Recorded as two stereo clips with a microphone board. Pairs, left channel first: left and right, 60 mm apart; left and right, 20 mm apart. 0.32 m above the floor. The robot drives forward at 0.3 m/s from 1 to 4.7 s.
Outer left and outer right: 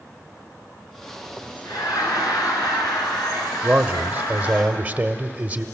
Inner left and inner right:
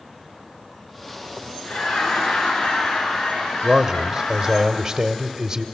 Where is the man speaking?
25° right (ahead or behind), 0.9 m.